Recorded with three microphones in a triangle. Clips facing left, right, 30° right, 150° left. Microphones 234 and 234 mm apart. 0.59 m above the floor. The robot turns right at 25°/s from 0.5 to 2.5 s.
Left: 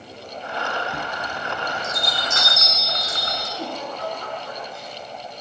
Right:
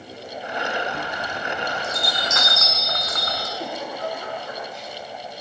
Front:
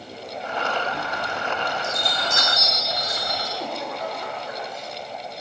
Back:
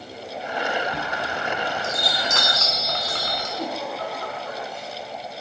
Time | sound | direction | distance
0.9 | a chime | 110° left | 6 m
3.6 | a giggle | 120° left | 8.5 m